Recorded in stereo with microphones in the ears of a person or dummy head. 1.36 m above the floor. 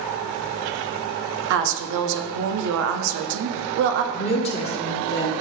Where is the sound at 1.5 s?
60° right (ahead or behind), 0.6 m.